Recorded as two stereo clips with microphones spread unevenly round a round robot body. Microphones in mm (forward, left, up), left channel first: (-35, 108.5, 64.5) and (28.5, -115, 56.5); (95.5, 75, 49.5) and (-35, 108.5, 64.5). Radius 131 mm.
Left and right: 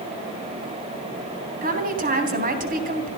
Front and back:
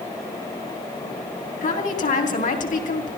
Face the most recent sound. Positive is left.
turn(degrees=-20)